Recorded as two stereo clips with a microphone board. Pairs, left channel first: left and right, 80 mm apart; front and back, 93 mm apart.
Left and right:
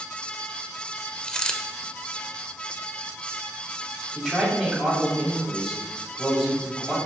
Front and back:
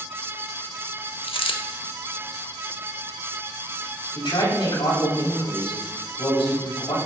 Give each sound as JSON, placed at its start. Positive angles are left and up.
{"t": 1.2, "sound": "a dropped coin", "azimuth_deg": 10, "distance_m": 0.7}
{"t": 4.2, "sound": "a man speaking", "azimuth_deg": 5, "distance_m": 3.5}